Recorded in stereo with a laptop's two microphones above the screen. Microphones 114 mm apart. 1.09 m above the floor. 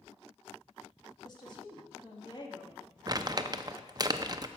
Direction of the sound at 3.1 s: 35° right (ahead or behind).